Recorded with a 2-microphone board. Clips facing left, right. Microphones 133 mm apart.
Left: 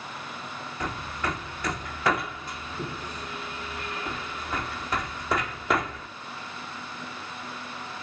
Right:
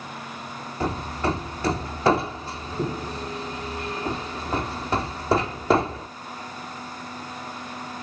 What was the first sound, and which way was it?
Hammering, 30° right (ahead or behind).